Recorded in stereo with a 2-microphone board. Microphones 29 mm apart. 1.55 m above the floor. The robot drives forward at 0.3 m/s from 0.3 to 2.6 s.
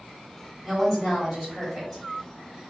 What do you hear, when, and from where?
0.6 s a woman speaking: 5° right (ahead or behind), 1.6 m